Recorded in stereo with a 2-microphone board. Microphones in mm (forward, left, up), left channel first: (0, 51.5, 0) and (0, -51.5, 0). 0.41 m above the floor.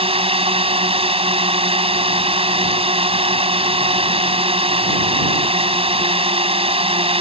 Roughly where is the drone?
Right.